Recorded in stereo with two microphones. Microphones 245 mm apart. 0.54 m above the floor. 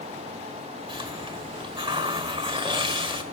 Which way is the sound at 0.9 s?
20° right (ahead or behind).